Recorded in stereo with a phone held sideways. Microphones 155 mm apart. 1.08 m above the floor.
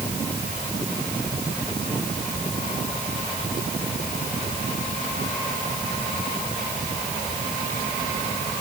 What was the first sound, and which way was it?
Only background noise.